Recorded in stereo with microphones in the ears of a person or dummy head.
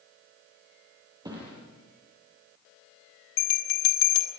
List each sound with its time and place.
1.2 s a thud: 20° right (ahead or behind), 9 m
3.4 s a bell: 75° left (ahead or behind), 3.5 m